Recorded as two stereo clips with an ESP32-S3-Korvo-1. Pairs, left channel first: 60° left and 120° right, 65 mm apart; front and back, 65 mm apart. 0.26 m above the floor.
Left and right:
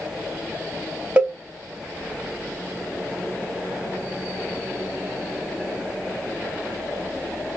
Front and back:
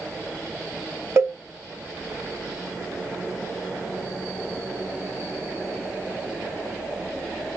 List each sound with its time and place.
1.2 s a cowbell: 175° right, 0.6 m